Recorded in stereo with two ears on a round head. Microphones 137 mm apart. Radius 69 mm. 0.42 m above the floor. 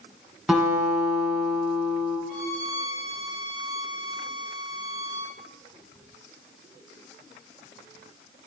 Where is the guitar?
5° right (ahead or behind), 3 m.